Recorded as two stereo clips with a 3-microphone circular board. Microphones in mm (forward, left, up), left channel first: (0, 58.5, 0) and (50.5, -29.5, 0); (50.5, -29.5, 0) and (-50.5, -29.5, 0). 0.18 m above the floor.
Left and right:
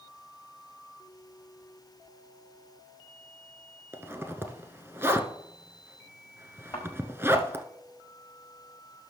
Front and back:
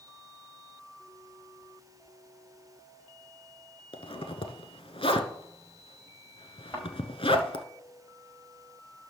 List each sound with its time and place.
3.9 s a zipper: 5° left, 1.0 m
6.7 s a thud: 65° left, 5.5 m